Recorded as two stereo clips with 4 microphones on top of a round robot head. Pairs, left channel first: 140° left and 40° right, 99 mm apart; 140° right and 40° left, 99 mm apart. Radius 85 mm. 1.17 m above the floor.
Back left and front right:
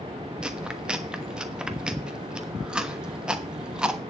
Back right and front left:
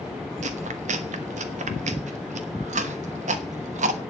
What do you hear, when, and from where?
0.4 s chewing: 40° left, 1.2 m